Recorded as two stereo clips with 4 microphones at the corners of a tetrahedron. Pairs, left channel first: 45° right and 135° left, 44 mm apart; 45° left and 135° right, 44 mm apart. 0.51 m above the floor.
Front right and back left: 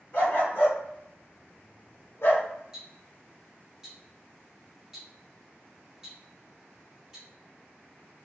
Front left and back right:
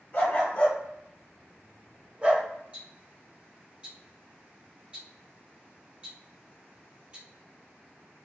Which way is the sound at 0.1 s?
Straight ahead.